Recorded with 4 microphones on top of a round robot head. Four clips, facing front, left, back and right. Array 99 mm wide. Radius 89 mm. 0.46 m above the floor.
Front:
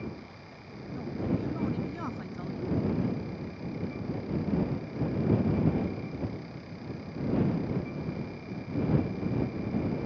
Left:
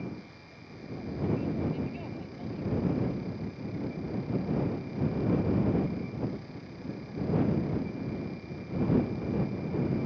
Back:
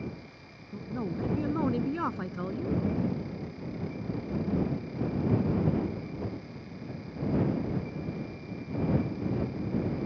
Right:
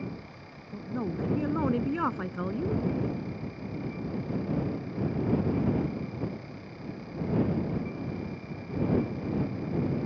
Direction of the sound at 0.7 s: 125° right.